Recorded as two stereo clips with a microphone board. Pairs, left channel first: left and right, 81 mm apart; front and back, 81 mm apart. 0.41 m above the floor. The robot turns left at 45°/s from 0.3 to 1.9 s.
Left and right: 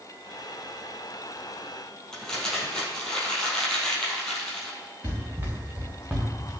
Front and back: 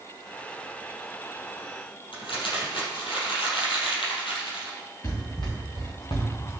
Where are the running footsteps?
35° right, 4 m; by 6.5 s 5° right, 3 m.